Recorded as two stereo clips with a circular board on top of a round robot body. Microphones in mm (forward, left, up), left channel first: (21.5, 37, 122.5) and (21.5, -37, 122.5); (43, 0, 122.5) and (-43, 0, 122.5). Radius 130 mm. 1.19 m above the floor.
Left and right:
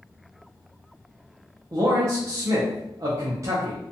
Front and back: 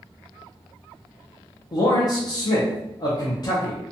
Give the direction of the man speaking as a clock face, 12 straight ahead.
1 o'clock.